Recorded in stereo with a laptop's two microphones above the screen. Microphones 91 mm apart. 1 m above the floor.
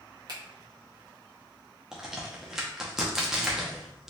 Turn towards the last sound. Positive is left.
turn(degrees=-5)  # may be behind; listen again after turning